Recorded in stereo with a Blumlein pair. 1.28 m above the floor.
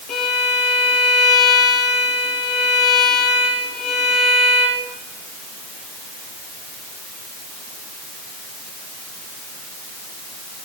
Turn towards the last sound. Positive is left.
turn(degrees=35)